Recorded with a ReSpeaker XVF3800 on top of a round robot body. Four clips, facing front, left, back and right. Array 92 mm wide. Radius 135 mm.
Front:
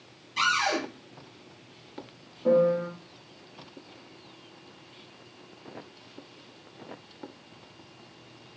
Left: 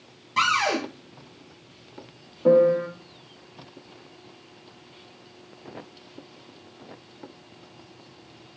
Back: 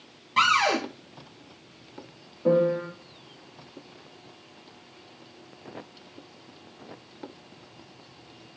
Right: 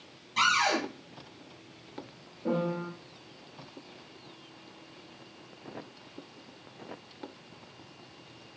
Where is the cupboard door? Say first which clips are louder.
Left 3 dB, back 4 dB; 150° left, 2.5 m.